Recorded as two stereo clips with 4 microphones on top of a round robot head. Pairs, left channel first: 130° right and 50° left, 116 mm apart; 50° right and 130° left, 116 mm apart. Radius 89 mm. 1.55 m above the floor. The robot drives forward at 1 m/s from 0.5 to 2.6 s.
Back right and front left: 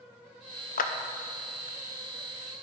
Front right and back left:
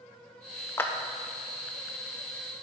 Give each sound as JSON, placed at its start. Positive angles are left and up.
{"t": 0.8, "sound": "a clap", "azimuth_deg": -120, "distance_m": 0.7}